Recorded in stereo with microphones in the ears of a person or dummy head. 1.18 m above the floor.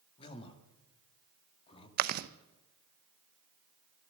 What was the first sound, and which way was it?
A man speaking, 30° left (ahead or behind).